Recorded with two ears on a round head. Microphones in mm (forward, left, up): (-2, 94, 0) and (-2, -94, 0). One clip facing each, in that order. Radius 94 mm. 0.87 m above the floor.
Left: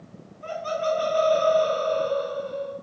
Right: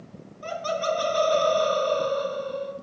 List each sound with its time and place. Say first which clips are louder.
0.4 s laughter: left 1 dB; 55° right (ahead or behind), 1.6 m